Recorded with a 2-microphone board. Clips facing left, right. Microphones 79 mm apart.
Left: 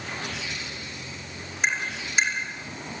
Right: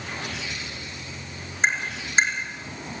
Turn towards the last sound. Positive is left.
turn(degrees=-30)  # may be behind; listen again after turning